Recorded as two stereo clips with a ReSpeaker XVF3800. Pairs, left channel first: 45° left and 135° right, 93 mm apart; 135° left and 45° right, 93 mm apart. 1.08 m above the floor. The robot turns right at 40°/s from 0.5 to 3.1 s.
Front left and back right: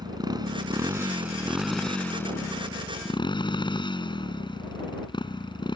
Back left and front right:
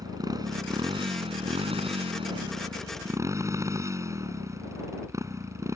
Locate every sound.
0.0 s a motorcycle: 95° right; by 5.8 s 10° left